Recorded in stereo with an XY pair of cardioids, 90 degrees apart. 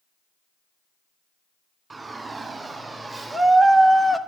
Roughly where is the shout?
Ahead right.